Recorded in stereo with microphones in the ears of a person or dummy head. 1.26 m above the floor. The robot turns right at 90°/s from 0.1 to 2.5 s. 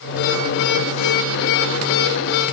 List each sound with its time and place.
Only background noise.